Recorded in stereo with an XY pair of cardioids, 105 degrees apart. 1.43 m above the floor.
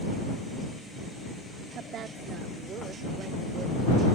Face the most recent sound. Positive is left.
turn(degrees=-50)